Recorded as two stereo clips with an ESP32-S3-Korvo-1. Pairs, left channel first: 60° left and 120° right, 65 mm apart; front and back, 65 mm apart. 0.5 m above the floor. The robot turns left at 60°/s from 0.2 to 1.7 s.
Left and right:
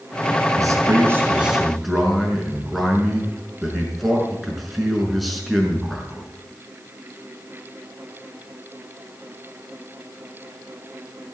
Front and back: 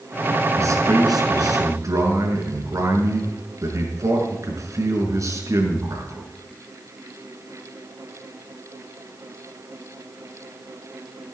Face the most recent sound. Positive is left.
turn(degrees=150)